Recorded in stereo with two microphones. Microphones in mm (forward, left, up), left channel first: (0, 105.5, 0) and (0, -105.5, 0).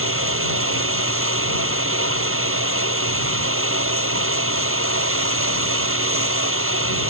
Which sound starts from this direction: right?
Running water, at 0.0 s.